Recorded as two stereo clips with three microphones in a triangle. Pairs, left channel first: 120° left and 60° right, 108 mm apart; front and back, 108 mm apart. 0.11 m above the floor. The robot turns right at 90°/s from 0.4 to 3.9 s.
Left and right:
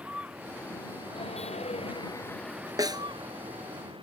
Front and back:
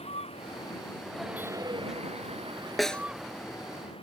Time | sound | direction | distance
0.0 | a vehicle | 20° left | ?
2.8 | a snare drum | 90° right | ?